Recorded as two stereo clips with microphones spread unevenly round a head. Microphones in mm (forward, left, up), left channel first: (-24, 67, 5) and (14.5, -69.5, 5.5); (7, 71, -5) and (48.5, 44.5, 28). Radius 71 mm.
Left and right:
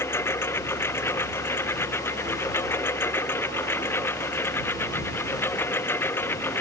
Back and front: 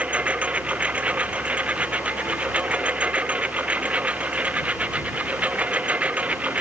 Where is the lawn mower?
30° left.